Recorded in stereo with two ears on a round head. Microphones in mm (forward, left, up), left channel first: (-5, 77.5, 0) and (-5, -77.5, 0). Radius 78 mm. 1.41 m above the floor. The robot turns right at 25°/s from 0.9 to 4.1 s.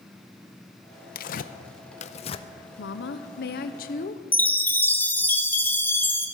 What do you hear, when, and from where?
1.1 s tearing paper: 50° left (ahead or behind), 0.5 m; by 2.5 s 30° left (ahead or behind), 0.5 m
2.8 s a woman speaking: 100° left, 0.8 m; by 4.2 s 130° left, 0.8 m
4.3 s a chime: 10° left (ahead or behind), 0.9 m